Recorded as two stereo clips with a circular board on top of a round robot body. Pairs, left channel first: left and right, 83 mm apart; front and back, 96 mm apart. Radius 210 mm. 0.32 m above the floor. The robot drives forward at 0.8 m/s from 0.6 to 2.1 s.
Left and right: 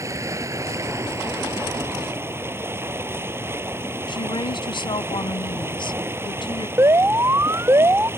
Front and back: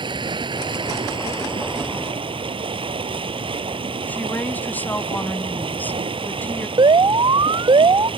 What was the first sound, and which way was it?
Running water, 145° right.